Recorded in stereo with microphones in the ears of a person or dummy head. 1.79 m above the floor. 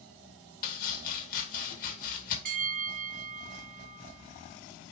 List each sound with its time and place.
0.6 s chopping: 50° left (ahead or behind), 2 m
2.5 s a bell: 45° right (ahead or behind), 2.5 m